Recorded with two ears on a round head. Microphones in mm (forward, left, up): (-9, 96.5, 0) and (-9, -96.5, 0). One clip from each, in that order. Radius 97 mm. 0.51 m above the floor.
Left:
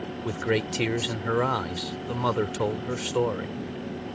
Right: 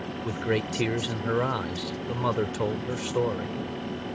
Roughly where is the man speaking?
Centre.